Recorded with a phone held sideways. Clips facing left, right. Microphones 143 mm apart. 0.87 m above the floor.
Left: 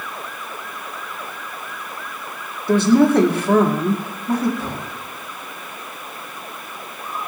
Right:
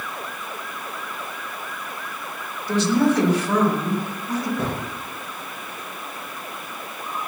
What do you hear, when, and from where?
2.7 s a woman speaking: 55° left (ahead or behind), 2.5 m
4.6 s a gunshot: 60° right (ahead or behind), 5.5 m